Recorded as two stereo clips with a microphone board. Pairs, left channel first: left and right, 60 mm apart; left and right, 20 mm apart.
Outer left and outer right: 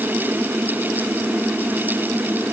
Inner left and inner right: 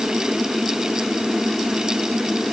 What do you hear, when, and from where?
Only background noise.